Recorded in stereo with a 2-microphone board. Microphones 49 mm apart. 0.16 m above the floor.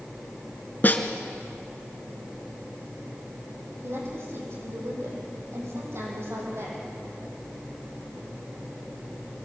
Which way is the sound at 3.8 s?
60° right (ahead or behind).